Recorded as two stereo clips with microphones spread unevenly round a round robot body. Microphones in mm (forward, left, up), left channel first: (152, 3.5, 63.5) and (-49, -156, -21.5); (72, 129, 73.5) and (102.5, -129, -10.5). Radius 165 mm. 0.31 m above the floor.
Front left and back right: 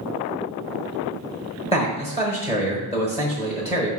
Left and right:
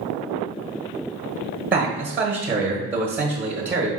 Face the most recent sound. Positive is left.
turn(degrees=-45)